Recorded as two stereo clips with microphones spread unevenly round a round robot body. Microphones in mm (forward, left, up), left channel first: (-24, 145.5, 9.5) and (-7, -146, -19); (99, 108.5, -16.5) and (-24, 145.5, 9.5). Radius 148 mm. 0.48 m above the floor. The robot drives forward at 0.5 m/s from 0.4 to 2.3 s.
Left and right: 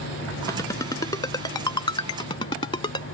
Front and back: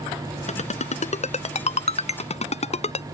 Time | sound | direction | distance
0.5 | a ringtone | 15° left | ?